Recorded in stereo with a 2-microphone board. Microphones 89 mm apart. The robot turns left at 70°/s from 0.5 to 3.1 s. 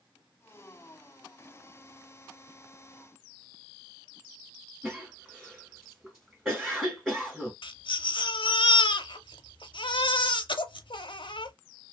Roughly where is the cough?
Centre.